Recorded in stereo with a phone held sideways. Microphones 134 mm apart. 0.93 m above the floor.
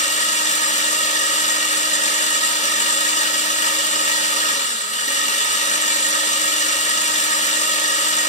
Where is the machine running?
60° left (ahead or behind), 1.8 m.